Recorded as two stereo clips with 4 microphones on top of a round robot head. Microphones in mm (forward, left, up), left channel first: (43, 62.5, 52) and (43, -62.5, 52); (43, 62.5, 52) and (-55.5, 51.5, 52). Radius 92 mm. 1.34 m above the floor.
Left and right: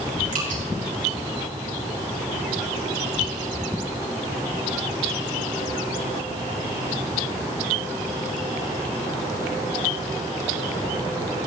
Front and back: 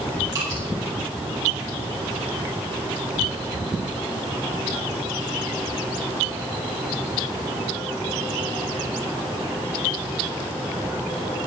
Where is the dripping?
110° right, 6 m.